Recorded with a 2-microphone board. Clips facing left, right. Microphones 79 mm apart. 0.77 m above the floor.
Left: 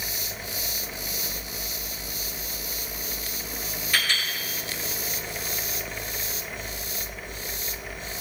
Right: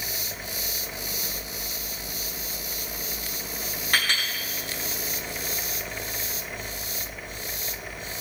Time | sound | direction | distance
3.9 | a clink | 60° right (ahead or behind) | 4 m